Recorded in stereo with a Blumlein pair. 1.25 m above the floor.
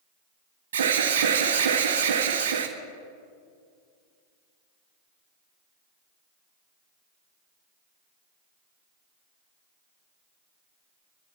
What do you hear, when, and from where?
0.7 s an alarm: 60° right, 1.5 m